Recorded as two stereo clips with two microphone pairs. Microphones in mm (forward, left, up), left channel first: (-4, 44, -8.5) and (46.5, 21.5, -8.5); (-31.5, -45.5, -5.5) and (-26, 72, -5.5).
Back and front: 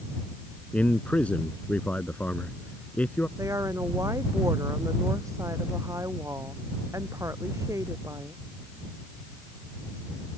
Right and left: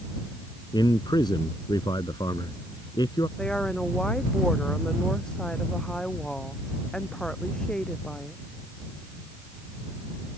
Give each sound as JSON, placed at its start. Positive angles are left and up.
{"t": 0.7, "sound": "a man speaking", "azimuth_deg": -140}
{"t": 3.4, "sound": "a woman speaking", "azimuth_deg": -10}